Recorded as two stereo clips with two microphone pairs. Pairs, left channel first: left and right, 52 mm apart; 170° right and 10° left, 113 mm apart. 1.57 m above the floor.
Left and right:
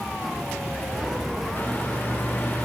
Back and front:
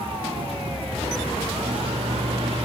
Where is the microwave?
35° left, 2.5 m.